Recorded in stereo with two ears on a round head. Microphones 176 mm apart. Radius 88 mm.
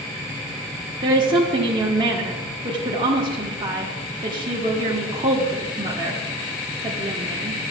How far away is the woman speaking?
About 0.9 m.